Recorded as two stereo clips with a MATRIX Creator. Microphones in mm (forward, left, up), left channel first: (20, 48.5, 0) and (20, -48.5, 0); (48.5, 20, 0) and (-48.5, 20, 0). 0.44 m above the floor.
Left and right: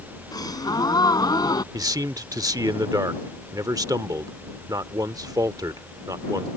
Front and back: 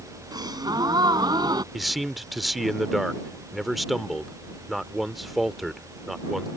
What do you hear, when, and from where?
0.3 s a gasp: 135° left
1.7 s a man speaking: 90° right